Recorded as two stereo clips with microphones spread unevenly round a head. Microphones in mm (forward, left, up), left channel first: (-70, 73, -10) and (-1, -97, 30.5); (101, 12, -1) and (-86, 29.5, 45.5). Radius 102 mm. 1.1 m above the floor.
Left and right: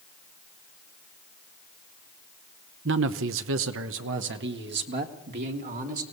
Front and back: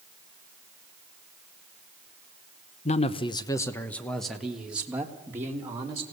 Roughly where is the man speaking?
Ahead right.